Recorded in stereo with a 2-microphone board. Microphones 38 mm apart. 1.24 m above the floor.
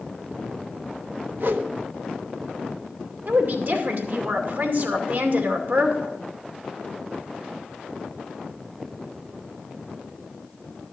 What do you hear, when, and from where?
1.4 s a whoosh: 65° right (ahead or behind), 1.0 m
3.3 s a woman speaking: 60° right (ahead or behind), 2.5 m